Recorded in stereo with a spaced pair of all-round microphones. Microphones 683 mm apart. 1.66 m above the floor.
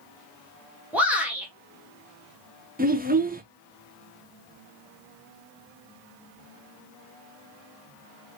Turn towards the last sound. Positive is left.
turn(degrees=-15)  # may be behind; listen again after turning